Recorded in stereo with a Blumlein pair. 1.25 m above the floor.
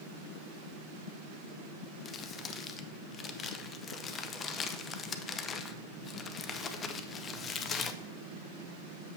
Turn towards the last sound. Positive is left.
turn(degrees=25)